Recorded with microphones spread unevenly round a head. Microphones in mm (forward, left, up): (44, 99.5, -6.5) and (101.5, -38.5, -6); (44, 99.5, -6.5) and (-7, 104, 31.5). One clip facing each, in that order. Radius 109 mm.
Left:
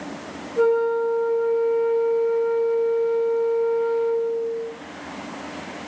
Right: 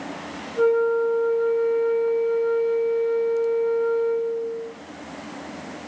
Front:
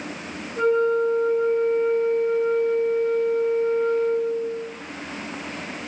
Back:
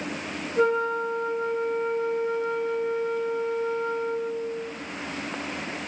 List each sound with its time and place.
0.6 s a flute: 175° right, 1.3 m